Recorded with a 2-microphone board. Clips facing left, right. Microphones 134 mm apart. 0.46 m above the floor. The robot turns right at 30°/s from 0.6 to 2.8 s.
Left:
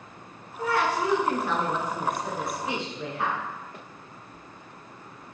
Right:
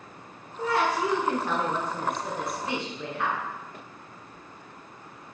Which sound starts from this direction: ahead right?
A woman speaking, at 0.6 s.